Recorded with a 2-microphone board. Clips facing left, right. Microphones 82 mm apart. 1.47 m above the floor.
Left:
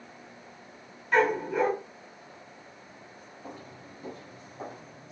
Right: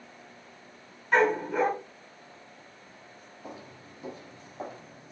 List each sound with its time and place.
1.1 s a dog barking: 30° right (ahead or behind), 4.5 m
3.4 s footsteps: 10° right (ahead or behind), 3 m; by 5.1 s 30° right (ahead or behind), 4.5 m